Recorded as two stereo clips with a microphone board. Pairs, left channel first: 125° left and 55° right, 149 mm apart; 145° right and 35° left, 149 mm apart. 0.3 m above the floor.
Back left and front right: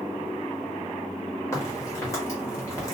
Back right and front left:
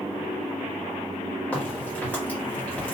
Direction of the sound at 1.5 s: 150° left.